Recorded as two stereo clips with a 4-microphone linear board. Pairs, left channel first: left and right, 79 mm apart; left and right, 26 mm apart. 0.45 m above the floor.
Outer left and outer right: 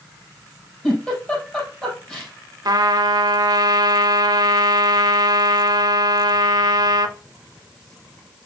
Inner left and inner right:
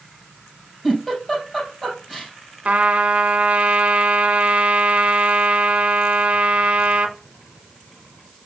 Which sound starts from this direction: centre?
A giggle, at 0.8 s.